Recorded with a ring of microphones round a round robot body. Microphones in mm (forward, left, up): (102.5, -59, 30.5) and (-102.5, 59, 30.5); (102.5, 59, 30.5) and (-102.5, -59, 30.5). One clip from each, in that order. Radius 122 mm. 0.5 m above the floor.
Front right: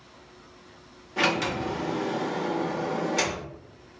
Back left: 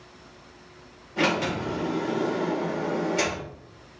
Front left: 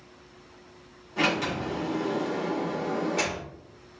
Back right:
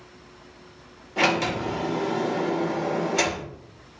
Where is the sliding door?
80° right, 2 m.